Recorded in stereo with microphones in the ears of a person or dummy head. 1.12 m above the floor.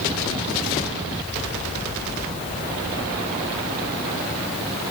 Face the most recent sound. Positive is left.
No sound to turn to.